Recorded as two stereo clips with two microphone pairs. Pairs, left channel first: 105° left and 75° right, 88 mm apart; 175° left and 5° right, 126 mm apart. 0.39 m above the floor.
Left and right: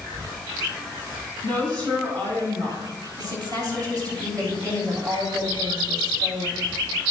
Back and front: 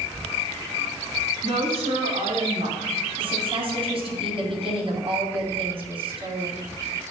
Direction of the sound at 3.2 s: 40° right.